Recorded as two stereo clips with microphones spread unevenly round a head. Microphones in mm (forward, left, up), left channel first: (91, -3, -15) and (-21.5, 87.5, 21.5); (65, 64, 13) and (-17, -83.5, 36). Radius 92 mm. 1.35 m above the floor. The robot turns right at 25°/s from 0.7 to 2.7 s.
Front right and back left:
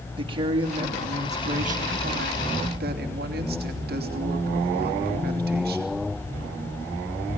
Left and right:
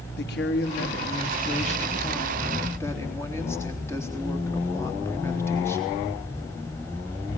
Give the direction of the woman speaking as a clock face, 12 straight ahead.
9 o'clock.